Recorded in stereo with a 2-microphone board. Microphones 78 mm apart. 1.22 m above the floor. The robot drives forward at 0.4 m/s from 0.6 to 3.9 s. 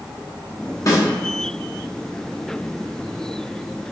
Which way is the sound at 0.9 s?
45° left (ahead or behind).